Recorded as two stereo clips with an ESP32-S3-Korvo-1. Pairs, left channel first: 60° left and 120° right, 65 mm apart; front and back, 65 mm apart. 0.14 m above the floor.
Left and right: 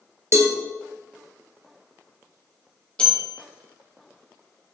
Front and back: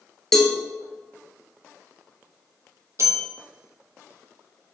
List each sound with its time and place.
0.3 s a cowbell: 80° right, 1.3 m
3.0 s a bell: 135° left, 1.7 m